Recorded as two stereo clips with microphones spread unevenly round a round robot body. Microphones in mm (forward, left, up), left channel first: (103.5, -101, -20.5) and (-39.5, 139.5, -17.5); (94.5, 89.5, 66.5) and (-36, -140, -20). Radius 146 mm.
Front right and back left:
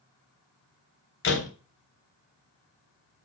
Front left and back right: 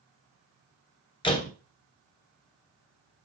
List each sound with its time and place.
1.2 s a door slam: 15° right, 3 m